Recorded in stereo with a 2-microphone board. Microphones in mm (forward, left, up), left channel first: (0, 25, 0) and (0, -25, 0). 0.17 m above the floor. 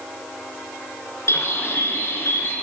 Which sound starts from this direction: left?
A bird, at 1.3 s.